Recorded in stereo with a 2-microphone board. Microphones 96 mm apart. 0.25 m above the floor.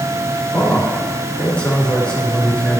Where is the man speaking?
10° left (ahead or behind), 3.5 m.